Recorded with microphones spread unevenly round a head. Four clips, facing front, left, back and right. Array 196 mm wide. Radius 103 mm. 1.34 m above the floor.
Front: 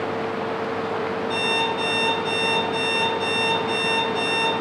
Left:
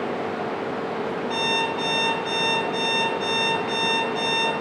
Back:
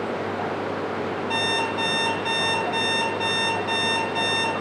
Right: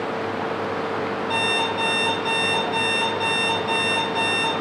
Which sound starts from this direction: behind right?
An alarm clock, at 1.3 s.